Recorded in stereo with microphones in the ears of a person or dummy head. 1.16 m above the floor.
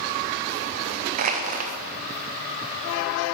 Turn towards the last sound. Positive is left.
turn(degrees=-45)  # may be behind; listen again after turning